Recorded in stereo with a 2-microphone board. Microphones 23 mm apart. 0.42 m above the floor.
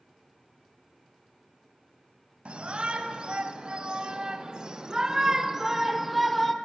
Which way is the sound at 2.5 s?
65° right (ahead or behind).